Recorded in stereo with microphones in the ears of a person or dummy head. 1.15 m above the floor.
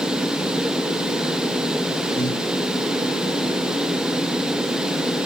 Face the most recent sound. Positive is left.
turn(degrees=40)  # may be behind; listen again after turning